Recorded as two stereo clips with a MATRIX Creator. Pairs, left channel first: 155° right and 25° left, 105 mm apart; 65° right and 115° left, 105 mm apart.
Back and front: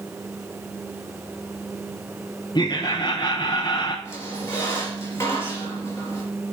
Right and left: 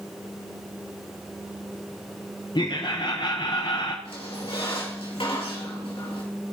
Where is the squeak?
95° right, 4 m.